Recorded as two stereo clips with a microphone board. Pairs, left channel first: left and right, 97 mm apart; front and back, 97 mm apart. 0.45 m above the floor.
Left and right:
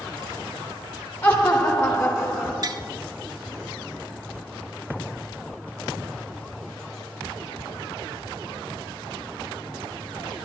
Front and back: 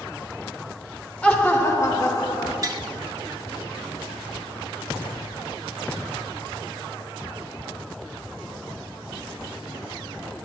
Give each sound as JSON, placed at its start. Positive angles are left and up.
{"t": 1.2, "sound": "laughter", "azimuth_deg": 70, "distance_m": 1.0}
{"t": 2.6, "sound": "tapping", "azimuth_deg": -135, "distance_m": 0.5}